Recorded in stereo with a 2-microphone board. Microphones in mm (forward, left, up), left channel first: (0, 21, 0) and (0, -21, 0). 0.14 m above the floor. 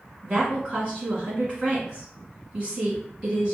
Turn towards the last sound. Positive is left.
turn(degrees=-25)  # may be behind; listen again after turning